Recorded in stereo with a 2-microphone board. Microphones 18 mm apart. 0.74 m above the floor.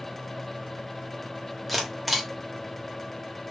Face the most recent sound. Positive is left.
turn(degrees=0)  # may be behind; listen again after turning